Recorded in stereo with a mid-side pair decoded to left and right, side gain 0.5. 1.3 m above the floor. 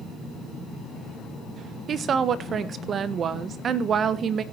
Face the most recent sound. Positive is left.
turn(degrees=-45)